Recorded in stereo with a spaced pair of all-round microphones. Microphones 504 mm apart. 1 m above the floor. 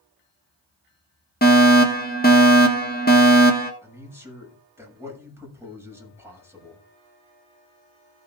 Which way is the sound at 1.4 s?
20° left (ahead or behind).